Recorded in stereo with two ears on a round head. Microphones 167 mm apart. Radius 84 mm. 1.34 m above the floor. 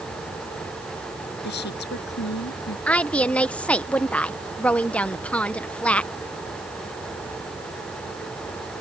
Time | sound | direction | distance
1.4 | a woman speaking | 60° left (ahead or behind) | ?
2.9 | a woman speaking | 5° left (ahead or behind) | ?